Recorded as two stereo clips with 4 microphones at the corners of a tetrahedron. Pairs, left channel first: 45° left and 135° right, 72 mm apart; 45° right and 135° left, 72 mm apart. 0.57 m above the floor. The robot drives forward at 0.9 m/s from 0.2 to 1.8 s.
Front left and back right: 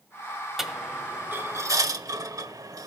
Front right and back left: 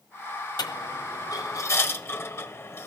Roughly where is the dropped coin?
Ahead right.